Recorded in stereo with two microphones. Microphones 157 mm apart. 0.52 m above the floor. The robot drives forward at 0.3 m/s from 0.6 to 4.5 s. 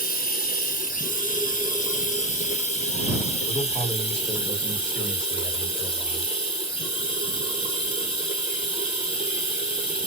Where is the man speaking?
35° left (ahead or behind), 1.6 m; by 6.3 s 30° left (ahead or behind), 1.7 m.